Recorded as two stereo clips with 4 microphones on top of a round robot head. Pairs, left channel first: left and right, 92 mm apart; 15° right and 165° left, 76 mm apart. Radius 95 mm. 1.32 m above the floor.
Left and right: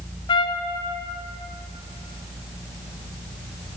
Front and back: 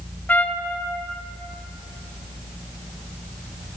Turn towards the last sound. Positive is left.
turn(degrees=55)